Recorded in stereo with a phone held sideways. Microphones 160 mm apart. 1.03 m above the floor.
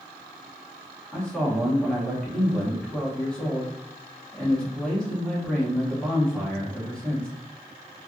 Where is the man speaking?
5° left (ahead or behind), 1.4 m.